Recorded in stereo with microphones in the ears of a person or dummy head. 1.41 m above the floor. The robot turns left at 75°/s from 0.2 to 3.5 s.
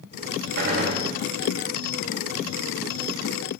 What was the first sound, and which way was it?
A gunshot, 110° right.